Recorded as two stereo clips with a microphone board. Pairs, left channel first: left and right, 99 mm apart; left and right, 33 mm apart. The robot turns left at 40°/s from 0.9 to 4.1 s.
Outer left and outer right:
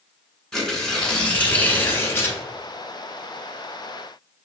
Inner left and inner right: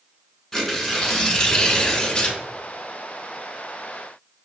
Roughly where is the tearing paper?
Centre.